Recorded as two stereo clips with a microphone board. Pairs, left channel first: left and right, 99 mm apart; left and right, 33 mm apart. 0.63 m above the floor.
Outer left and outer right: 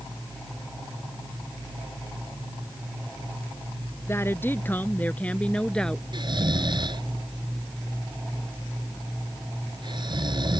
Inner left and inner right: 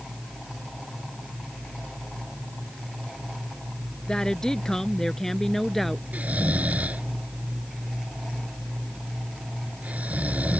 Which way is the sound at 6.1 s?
55° right (ahead or behind).